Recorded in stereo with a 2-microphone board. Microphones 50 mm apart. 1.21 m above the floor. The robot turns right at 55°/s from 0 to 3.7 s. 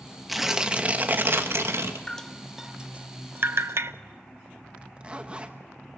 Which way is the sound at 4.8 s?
25° right (ahead or behind).